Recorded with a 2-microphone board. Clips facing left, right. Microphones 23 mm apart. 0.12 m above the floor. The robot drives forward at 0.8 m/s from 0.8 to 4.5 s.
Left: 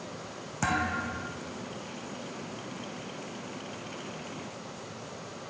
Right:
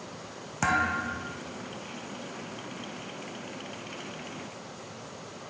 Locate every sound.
0.6 s a thud: 15° right (ahead or behind), 1.1 m; by 1.4 s 10° right (ahead or behind), 1.5 m